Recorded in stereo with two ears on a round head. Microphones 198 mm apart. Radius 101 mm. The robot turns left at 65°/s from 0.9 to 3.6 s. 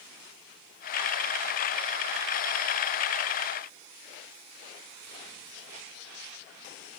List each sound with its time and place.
Only background noise.